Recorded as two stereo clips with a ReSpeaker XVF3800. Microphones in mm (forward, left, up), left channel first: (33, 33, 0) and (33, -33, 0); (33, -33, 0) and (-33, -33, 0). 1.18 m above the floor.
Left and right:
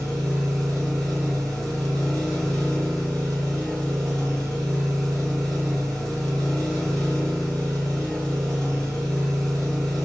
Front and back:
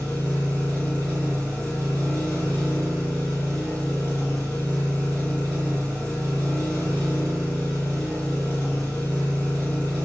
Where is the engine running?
170° left, 1.3 m.